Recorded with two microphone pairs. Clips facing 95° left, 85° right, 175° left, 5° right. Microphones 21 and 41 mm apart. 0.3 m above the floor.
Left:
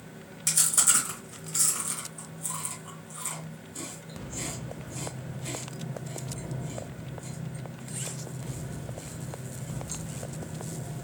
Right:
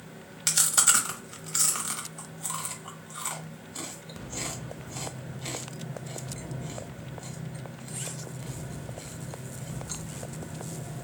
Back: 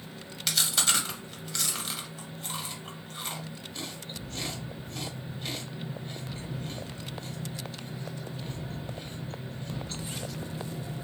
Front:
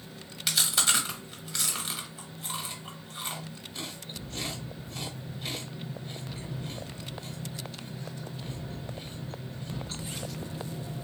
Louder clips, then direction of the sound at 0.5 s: Right 2 dB, front 1 dB; 85° right.